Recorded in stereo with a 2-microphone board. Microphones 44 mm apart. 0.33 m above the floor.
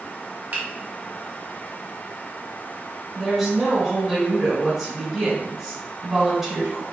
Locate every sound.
0.5 s a finger snap: 45° right (ahead or behind), 1.0 m
3.1 s a woman speaking: 5° right (ahead or behind), 1.3 m